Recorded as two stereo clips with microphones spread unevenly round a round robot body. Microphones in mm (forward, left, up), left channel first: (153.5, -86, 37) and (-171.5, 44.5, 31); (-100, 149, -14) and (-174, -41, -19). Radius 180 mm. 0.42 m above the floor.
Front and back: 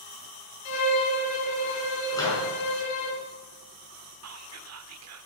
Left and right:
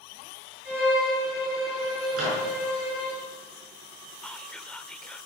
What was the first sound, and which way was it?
A violin, 45° right.